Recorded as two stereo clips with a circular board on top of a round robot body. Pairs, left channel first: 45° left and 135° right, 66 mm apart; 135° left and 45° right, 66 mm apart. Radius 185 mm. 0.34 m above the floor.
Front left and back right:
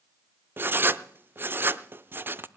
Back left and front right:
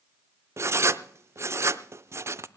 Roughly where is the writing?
Right.